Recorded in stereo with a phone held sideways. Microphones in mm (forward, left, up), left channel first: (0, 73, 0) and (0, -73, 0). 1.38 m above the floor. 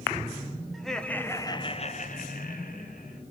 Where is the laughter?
Centre (ahead or behind), 1.4 m; by 3.2 s 60° left (ahead or behind), 1.5 m.